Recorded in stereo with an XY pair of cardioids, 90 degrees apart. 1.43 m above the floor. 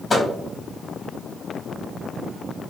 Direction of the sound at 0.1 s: 35° left.